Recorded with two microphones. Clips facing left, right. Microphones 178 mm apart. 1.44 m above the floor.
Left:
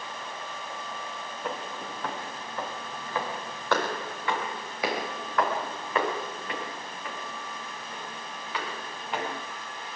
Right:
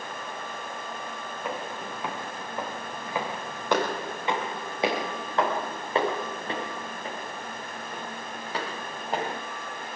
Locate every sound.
1.4 s footsteps: 5° right (ahead or behind), 5.5 m; by 9.4 s 40° right (ahead or behind), 9.5 m